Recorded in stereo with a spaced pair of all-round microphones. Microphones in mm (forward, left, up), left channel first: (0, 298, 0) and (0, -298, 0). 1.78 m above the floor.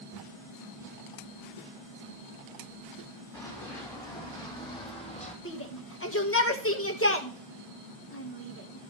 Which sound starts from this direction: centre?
Running footsteps, at 3.3 s.